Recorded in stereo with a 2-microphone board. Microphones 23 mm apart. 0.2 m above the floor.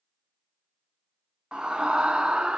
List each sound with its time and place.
1.5 s a scream: 50° right (ahead or behind), 1.8 m; by 2.6 s 55° right (ahead or behind), 2 m